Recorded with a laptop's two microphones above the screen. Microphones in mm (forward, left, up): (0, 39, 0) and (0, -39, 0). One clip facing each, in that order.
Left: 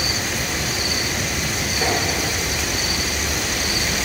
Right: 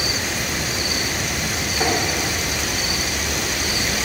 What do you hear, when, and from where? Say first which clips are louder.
1.8 s tapping: right 1 dB; 70° right (ahead or behind), 1.9 m